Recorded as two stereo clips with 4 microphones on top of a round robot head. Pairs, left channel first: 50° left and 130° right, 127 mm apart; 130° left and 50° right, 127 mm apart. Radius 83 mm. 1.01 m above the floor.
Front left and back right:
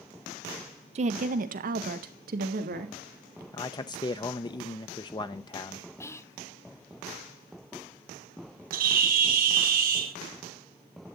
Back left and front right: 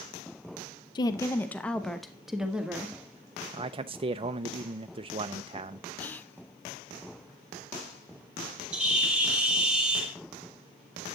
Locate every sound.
0.9 s a woman speaking: 170° right, 0.5 m; by 3.4 s 130° right, 1.7 m
3.5 s a man speaking: 5° right, 0.5 m
6.0 s whispering: 75° left, 0.7 m
8.7 s a bird: 135° right, 2 m